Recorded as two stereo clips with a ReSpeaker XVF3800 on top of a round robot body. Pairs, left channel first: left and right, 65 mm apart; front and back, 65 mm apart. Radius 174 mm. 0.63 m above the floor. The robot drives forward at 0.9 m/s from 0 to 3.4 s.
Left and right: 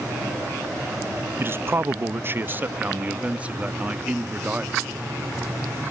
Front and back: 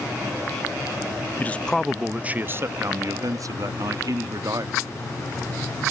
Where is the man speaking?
50° right; by 4.8 s 160° right.